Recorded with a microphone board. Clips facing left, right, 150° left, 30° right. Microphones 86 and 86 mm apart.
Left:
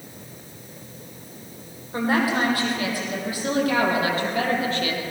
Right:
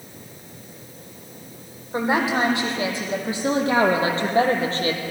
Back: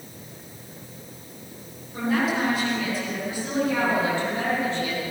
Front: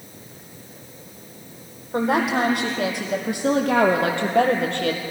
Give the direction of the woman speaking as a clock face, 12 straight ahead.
1 o'clock.